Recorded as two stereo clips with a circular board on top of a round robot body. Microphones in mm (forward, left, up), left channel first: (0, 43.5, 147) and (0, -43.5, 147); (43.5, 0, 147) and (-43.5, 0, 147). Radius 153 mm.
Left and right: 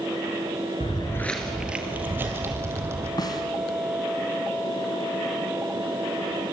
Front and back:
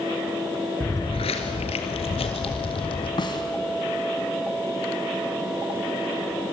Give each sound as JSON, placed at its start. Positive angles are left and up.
{"t": 0.8, "sound": "footsteps", "azimuth_deg": 75, "distance_m": 0.9}
{"t": 3.2, "sound": "a snare drum", "azimuth_deg": 40, "distance_m": 1.6}